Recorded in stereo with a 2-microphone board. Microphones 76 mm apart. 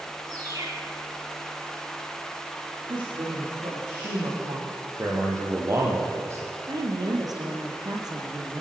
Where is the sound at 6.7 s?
55° right (ahead or behind), 4 m.